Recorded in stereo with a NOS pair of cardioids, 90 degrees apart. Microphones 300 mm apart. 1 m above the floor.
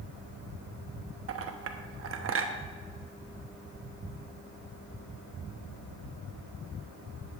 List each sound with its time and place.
1.3 s a clink: 45° right, 1.1 m